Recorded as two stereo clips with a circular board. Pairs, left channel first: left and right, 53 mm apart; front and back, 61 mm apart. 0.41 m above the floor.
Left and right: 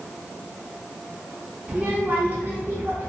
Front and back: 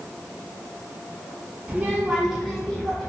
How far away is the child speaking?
About 0.9 m.